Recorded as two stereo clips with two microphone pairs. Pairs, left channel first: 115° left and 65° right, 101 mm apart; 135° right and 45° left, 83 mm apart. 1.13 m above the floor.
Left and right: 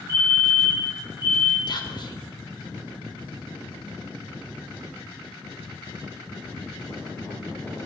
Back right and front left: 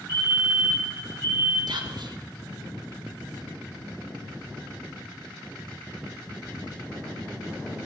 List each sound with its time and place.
0.1 s a fire alarm: 160° left, 4 m
1.7 s whispering: 75° left, 1.2 m